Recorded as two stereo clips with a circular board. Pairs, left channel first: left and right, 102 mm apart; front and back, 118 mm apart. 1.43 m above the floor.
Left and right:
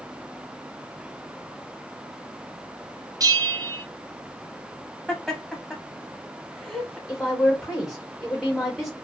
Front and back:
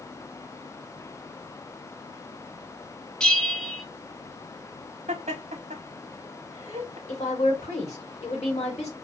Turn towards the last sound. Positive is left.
turn(degrees=5)